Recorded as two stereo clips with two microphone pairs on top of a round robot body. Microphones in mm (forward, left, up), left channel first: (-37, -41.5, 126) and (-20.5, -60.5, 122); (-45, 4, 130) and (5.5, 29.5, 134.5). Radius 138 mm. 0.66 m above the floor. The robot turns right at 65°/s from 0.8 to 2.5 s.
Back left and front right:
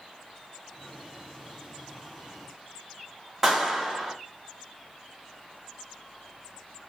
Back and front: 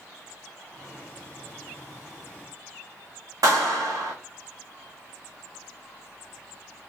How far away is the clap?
About 1.3 m.